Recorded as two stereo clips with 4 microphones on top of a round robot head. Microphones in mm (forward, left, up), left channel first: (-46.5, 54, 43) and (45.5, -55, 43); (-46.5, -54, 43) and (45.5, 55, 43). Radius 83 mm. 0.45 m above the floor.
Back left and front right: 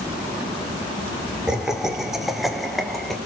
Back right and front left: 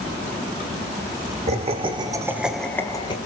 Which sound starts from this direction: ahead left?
Laughter, at 1.5 s.